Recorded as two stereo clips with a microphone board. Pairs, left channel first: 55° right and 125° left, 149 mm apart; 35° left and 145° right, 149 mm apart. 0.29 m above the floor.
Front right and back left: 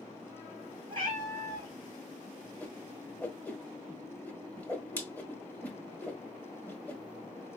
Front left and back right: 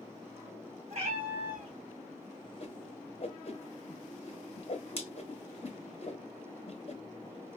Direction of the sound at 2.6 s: 20° left.